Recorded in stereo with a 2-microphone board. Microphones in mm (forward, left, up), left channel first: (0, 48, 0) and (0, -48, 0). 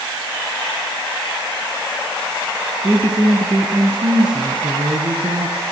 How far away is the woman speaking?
About 2.5 m.